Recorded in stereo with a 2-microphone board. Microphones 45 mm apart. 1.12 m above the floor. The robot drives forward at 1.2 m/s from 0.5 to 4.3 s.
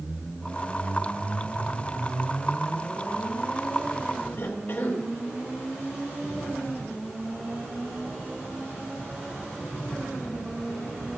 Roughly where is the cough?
Left.